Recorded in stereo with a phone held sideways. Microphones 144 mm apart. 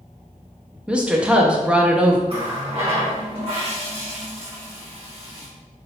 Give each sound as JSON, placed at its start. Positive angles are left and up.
{"t": 0.9, "sound": "a woman speaking", "side_deg": -5, "distance_m": 0.5}
{"t": 2.3, "sound": "a running tap", "side_deg": -45, "distance_m": 1.2}